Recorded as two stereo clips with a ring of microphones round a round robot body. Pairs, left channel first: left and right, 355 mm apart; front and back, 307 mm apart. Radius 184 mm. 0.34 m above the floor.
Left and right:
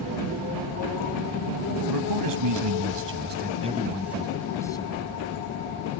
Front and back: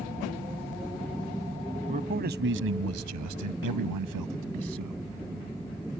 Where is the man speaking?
110° right; by 5.0 s 165° left.